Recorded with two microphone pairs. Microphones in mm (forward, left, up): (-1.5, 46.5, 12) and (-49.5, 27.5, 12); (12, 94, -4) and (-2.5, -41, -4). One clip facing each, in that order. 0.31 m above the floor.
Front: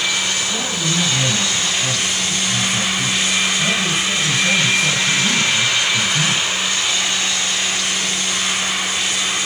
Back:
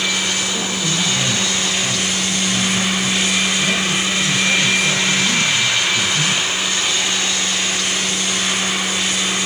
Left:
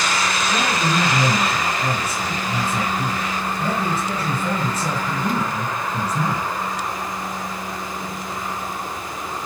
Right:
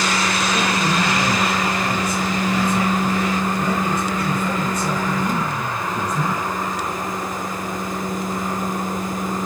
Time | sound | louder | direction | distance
0.5 | a man speaking | even, even | 25° left | 5.5 m